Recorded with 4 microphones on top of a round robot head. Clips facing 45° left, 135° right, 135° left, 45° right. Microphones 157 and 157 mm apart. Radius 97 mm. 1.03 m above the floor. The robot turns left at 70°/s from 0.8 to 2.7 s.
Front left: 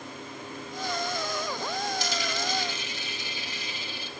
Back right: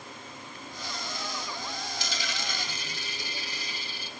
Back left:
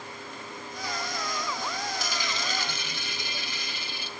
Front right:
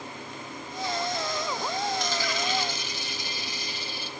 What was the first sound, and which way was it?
A dropped coin, 140° right.